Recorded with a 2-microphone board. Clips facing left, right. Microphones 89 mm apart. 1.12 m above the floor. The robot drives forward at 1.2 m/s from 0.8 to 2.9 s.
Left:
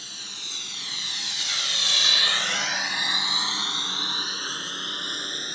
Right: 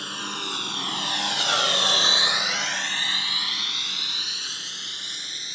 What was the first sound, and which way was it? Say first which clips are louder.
A lawn mower: right 13 dB; 65° right (ahead or behind).